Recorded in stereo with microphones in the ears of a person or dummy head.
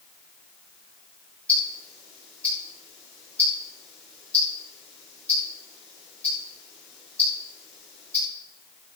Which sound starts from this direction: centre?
Ticking, at 1.5 s.